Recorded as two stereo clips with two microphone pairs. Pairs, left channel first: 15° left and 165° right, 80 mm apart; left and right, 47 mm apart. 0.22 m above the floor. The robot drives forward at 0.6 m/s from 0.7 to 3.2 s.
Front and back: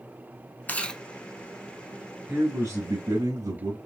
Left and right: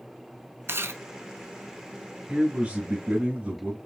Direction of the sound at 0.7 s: 55° right.